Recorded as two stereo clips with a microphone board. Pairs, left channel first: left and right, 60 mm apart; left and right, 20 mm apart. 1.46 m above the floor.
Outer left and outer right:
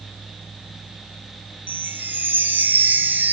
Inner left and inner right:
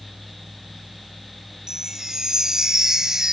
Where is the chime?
30° right (ahead or behind), 0.7 m.